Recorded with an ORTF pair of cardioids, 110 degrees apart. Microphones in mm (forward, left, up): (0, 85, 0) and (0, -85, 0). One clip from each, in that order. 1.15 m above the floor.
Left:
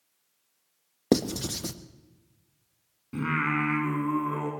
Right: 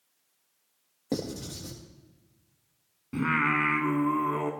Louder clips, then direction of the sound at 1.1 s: Left 8 dB; 65° left.